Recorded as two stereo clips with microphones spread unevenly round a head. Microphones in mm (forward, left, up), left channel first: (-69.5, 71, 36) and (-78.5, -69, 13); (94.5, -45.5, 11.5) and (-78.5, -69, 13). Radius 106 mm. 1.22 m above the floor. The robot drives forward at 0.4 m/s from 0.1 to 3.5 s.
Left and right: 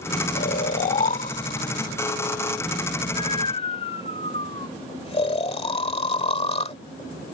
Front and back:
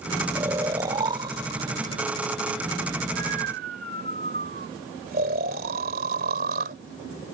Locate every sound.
0.3 s snoring: 110° left; by 6.8 s 135° left